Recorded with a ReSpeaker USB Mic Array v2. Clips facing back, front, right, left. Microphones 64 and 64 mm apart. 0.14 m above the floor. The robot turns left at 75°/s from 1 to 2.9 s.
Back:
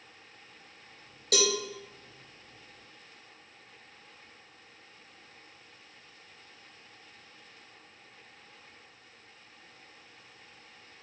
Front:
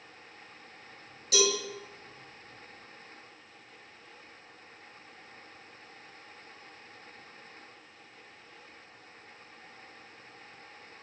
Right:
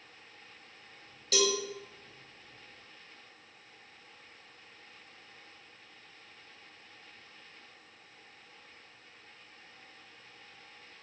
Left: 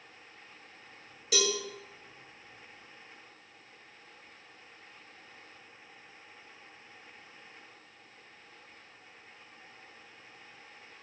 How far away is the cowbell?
About 0.8 m.